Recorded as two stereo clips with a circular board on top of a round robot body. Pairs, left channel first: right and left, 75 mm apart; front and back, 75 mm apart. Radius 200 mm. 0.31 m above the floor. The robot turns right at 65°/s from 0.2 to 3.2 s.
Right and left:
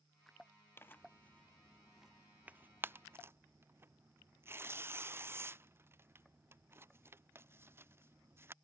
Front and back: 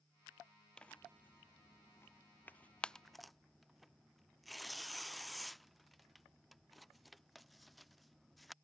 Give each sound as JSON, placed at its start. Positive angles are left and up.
{"t": 0.8, "sound": "tearing paper", "azimuth_deg": -70}